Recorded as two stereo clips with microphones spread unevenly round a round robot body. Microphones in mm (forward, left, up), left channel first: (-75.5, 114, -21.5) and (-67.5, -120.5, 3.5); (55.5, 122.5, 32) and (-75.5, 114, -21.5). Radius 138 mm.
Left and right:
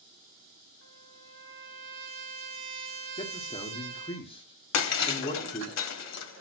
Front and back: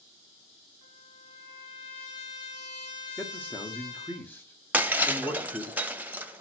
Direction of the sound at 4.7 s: 105° left.